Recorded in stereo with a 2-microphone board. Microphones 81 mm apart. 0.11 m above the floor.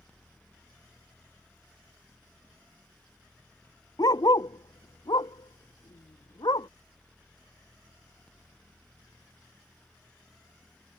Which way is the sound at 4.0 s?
55° left (ahead or behind).